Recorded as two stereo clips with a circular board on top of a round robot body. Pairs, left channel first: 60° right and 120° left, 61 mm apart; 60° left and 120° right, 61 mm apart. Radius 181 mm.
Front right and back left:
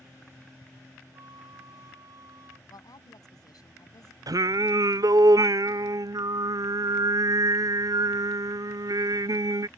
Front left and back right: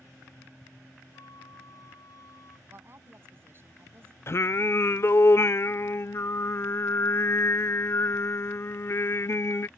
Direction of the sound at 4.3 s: 105° left.